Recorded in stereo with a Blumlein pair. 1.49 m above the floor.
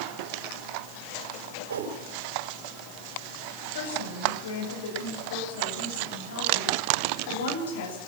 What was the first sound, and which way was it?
A whoosh, 65° right.